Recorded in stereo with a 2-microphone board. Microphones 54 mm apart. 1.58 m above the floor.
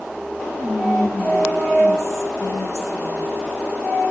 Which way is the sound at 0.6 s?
85° left.